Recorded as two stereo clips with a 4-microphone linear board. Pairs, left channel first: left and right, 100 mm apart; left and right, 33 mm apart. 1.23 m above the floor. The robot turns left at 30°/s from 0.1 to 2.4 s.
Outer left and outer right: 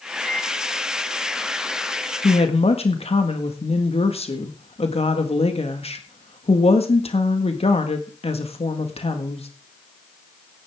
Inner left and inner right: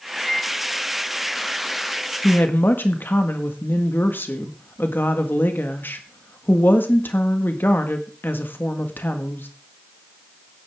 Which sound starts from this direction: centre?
A microwave, at 0.2 s.